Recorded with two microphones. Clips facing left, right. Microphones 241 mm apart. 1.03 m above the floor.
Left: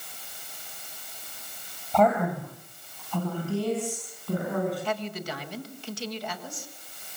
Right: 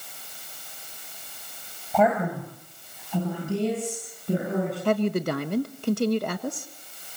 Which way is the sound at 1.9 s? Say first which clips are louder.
Even; 5° right (ahead or behind).